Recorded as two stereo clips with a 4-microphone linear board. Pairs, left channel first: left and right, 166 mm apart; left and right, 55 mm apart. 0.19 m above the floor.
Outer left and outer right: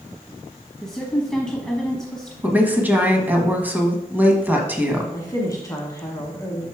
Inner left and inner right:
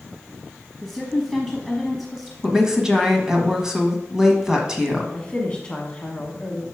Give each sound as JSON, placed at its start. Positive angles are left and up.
{"t": 0.8, "sound": "a woman speaking", "side_deg": 5, "distance_m": 1.1}
{"t": 2.4, "sound": "a woman speaking", "side_deg": -10, "distance_m": 1.2}
{"t": 5.1, "sound": "a woman speaking", "side_deg": 20, "distance_m": 1.3}